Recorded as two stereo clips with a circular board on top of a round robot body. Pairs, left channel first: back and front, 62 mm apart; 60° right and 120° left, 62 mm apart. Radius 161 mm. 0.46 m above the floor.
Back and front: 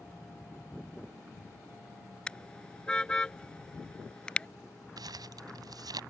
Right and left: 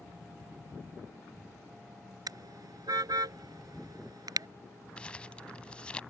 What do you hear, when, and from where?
2.3 s a car horn: 100° left
5.0 s crumpling: 15° left